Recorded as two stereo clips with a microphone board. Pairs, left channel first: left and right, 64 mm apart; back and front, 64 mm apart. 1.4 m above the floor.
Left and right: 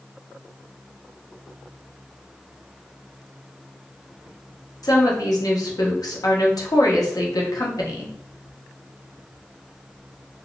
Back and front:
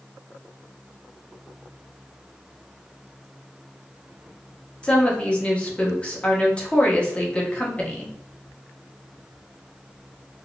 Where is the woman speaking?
110° left, 0.8 m.